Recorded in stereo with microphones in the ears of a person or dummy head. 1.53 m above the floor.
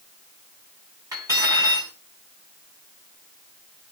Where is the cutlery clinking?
10° right (ahead or behind), 7.5 m.